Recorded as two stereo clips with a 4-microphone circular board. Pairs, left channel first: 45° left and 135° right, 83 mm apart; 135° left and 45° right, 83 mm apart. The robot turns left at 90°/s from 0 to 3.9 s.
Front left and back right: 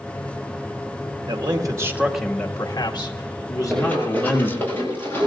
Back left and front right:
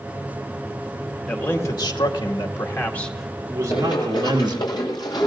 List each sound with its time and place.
1.3 s a man speaking: 140° right, 1.9 m; by 4.6 s 20° right, 1.9 m
3.7 s running footsteps: 135° left, 5 m; by 5.3 s 105° left, 6.5 m